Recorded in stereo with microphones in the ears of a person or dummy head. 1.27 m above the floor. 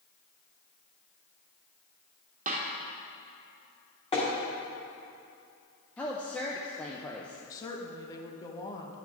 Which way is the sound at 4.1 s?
30° left (ahead or behind).